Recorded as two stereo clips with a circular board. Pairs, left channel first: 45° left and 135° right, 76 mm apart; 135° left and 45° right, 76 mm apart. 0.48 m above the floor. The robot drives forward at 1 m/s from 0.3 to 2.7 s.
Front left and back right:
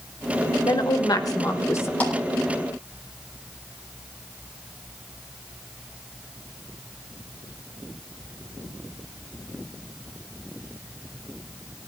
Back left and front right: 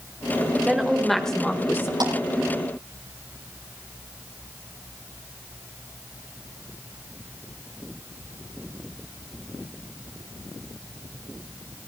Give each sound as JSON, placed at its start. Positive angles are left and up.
{"t": 0.6, "sound": "a woman speaking", "azimuth_deg": 35, "distance_m": 1.8}
{"t": 2.0, "sound": "a clap", "azimuth_deg": -25, "distance_m": 10.0}